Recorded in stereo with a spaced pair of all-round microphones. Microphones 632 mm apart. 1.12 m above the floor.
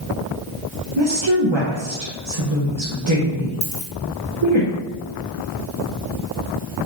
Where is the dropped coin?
5° right (ahead or behind), 1.4 m.